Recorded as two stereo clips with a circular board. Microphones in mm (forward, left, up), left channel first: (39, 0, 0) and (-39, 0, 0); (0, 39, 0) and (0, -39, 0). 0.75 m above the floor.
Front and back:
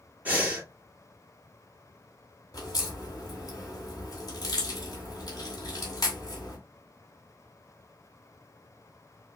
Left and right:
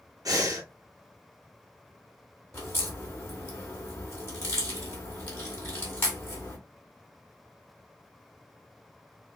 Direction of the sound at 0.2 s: 115° right.